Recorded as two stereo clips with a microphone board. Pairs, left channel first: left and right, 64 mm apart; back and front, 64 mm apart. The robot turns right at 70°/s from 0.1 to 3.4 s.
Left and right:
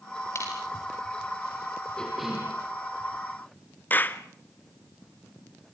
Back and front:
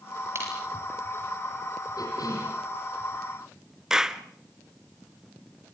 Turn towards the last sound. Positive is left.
turn(degrees=70)